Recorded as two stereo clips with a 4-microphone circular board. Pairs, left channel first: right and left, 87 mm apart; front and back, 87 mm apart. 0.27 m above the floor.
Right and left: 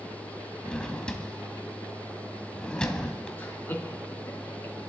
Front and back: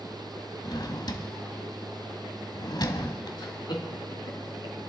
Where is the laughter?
25° right, 3.5 m.